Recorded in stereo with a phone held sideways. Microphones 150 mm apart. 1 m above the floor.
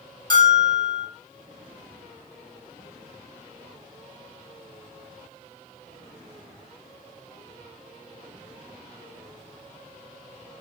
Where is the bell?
30° left (ahead or behind), 1.1 m.